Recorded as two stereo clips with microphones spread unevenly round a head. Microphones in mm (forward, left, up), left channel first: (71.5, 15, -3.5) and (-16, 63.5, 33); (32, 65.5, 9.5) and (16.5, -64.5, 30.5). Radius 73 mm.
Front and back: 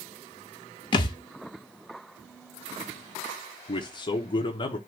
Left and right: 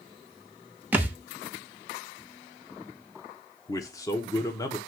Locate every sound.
0.9 s a thud: 70° right, 0.7 m
3.7 s a man speaking: 15° left, 1.1 m